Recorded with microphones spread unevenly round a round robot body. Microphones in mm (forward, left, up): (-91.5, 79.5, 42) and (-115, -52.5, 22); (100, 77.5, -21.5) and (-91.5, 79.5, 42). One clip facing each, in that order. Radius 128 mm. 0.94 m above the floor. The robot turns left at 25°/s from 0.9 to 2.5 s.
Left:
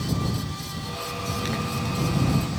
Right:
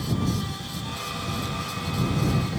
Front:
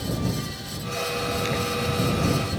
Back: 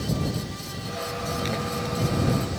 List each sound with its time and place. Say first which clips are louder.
1.4 s a zipper: left 4 dB, front 2 dB; 90° left; by 2.4 s 65° left